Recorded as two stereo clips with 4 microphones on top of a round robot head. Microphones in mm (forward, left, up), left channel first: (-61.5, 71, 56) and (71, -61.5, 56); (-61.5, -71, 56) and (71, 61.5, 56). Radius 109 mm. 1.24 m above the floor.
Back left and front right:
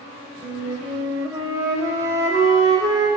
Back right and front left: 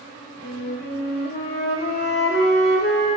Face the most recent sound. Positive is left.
turn(degrees=-115)